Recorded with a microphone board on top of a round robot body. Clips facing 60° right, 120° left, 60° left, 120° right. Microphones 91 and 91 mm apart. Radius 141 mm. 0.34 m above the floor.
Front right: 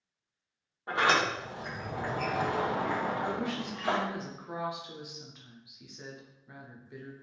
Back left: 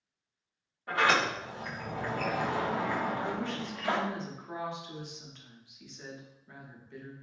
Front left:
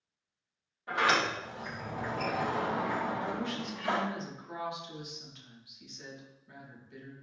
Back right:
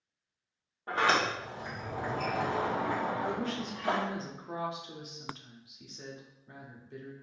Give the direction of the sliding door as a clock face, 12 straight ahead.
4 o'clock.